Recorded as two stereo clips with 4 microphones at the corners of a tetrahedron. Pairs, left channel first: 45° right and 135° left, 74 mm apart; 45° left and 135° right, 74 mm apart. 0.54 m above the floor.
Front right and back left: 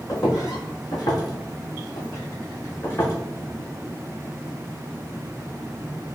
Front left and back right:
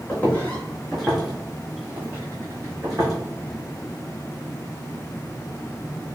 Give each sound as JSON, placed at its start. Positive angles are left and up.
{"t": 0.1, "sound": "footsteps", "azimuth_deg": -15, "distance_m": 1.2}